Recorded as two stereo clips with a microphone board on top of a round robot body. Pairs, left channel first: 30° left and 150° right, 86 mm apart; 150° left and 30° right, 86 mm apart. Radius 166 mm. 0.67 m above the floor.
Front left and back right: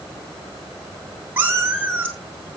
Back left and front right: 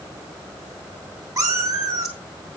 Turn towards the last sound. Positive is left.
turn(degrees=-80)